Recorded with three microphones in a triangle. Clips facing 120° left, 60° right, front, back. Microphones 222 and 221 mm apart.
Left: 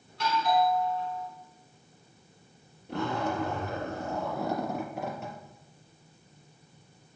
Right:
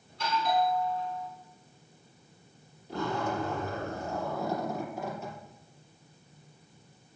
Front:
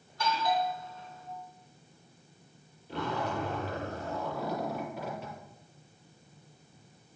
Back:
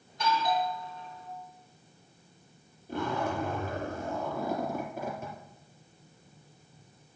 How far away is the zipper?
About 4 m.